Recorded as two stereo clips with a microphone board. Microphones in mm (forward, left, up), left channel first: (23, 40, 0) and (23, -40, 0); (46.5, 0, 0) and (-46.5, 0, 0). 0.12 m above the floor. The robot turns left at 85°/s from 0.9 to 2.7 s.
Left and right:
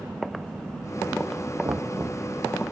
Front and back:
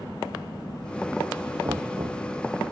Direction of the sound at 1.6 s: 130° right.